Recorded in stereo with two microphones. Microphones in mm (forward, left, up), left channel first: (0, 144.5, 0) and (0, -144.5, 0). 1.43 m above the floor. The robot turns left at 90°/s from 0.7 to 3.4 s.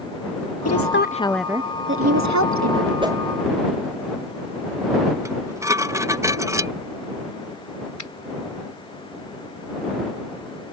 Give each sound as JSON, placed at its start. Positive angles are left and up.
{"t": 0.7, "sound": "a woman speaking", "azimuth_deg": 65}
{"t": 3.0, "sound": "a whoosh", "side_deg": -20}
{"t": 5.2, "sound": "dishes clattering", "side_deg": -10}
{"t": 8.0, "sound": "a finger snap", "side_deg": 80}